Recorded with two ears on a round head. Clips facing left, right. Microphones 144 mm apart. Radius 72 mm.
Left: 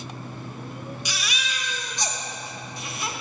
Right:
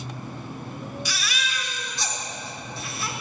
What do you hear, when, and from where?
1.1 s a baby crying: 15° left (ahead or behind), 0.8 m